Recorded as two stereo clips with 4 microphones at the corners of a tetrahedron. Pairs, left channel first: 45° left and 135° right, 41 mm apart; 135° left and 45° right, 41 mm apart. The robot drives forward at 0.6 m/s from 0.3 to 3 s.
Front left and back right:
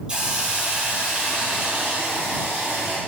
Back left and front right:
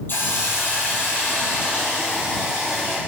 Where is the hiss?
160° left, 5 m; by 3.0 s 165° left, 6.5 m.